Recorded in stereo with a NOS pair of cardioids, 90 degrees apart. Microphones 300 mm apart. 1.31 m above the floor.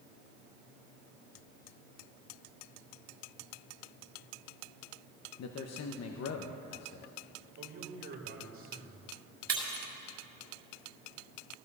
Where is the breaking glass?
55° right, 5 m.